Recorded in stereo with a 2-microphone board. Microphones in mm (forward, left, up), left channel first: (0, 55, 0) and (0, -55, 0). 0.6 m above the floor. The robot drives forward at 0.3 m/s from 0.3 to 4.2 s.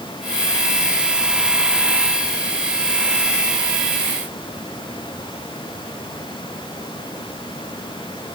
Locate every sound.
Only background noise.